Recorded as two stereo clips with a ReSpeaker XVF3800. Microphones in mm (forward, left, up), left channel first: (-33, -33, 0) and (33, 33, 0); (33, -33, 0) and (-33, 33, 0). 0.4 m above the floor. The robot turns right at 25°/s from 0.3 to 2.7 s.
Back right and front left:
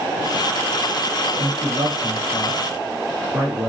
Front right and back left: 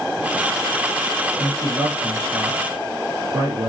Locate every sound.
1.4 s a man speaking: 80° left, 7 m; by 3.7 s 110° left, 7 m